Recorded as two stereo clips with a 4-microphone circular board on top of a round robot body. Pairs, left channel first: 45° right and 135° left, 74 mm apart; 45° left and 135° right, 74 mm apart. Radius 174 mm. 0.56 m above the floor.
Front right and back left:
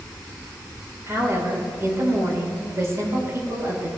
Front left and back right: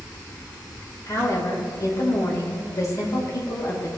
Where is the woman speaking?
85° left, 2.5 m.